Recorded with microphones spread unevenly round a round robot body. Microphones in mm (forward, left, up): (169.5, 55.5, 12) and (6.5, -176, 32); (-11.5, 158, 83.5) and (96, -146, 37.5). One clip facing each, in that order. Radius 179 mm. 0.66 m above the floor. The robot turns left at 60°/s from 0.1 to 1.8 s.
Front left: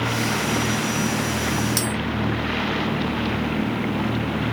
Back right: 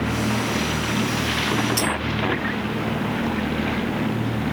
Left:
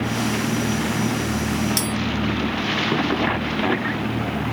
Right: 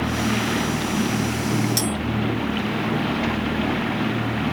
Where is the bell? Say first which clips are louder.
Back right 1 dB, right 1 dB; 35° left, 2.5 m; by 1.9 s 30° left, 2.5 m.